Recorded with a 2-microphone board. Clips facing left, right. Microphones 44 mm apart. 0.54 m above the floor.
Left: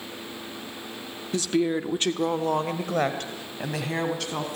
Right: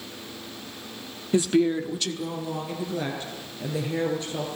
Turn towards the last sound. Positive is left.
turn(degrees=75)  # may be behind; listen again after turning